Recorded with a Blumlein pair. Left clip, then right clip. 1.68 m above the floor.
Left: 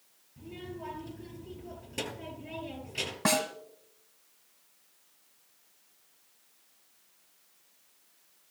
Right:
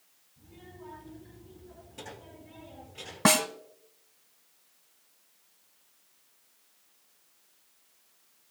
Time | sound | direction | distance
0.4 | a child speaking | 55° left | 6.5 m
3.2 | a snare drum | 70° right | 1.1 m